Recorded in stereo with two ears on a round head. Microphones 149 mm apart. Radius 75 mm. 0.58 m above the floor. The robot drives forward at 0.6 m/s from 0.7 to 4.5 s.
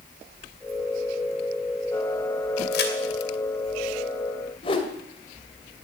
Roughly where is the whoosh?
Left.